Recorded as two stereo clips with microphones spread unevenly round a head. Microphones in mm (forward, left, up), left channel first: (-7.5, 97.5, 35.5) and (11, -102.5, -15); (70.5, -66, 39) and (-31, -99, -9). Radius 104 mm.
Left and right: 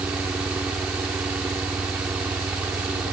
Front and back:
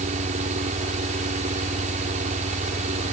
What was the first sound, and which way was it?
A fan, 170° right.